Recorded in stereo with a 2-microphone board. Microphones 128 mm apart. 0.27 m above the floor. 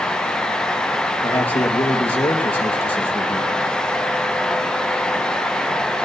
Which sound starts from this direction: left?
A man speaking, at 1.2 s.